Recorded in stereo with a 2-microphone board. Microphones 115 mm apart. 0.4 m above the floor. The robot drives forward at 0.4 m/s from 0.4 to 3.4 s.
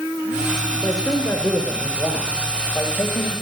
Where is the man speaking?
20° left (ahead or behind), 1.3 m; by 3.3 s 15° left (ahead or behind), 2.0 m.